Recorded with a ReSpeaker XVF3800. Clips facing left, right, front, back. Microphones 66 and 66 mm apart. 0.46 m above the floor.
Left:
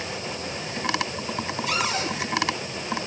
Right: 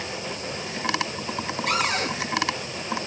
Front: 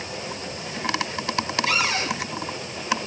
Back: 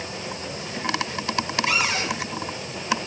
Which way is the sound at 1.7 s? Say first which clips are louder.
Right 3 dB, front 1 dB; 115° right.